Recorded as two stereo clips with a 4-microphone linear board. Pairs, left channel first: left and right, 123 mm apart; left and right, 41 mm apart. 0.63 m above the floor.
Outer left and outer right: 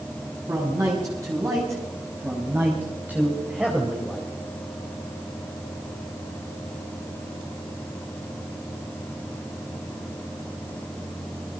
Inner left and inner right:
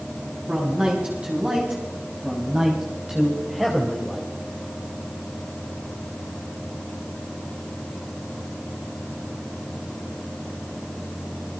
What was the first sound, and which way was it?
A man speaking, 30° right (ahead or behind).